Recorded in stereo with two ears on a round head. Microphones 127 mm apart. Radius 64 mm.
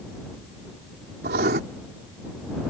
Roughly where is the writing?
Right.